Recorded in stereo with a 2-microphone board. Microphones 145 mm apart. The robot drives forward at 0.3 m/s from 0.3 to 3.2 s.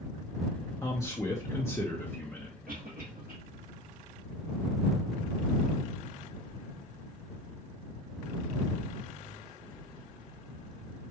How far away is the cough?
About 3 m.